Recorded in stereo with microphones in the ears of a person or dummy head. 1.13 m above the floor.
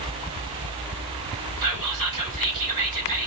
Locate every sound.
1.6 s whispering: 20° right (ahead or behind), 4 m